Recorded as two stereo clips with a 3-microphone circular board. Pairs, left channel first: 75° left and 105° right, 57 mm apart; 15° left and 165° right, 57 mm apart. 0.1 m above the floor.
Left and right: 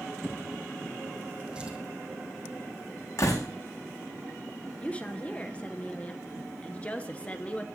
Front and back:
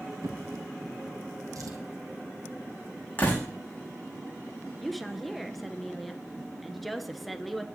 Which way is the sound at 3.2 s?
75° left.